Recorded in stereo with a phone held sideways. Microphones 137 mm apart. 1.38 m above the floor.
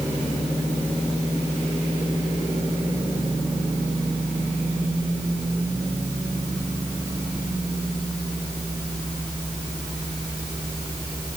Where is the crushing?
No crushing in this recording.